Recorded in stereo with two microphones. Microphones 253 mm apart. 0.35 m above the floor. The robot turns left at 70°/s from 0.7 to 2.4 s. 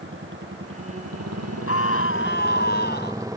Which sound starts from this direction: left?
A scream, at 1.7 s.